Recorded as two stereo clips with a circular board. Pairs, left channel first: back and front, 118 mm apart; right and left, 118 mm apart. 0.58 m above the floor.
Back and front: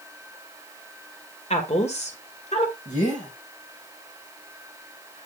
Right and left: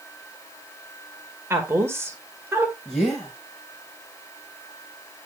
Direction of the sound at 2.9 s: 175° right.